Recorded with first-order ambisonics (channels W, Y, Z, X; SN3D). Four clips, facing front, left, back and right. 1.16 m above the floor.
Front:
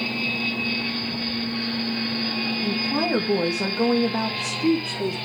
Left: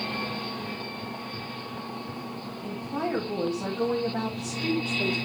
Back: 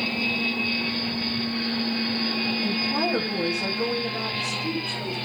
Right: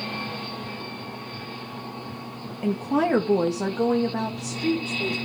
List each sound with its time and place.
2.6 s a woman speaking: 90° right, 2 m; by 5.2 s straight ahead, 3.5 m